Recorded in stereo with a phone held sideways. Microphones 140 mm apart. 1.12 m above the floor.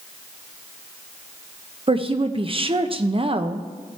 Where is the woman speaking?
40° right (ahead or behind), 0.7 m.